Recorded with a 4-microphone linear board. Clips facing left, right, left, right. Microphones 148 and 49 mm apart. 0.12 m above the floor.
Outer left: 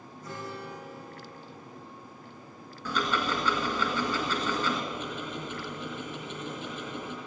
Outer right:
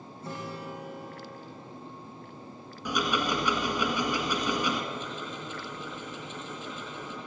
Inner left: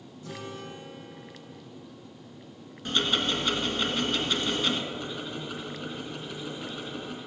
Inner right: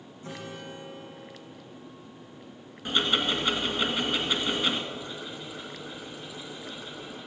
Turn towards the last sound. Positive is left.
turn(degrees=60)  # may be behind; listen again after turning